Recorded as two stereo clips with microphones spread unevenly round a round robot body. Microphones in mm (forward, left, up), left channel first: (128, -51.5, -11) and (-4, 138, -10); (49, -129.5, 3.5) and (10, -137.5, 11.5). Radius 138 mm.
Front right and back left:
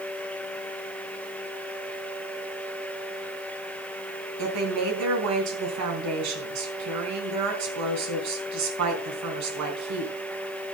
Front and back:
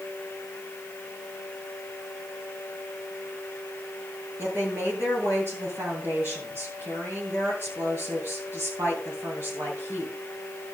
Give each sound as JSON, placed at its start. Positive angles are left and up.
{"t": 4.4, "sound": "a woman speaking", "azimuth_deg": 130, "distance_m": 4.0}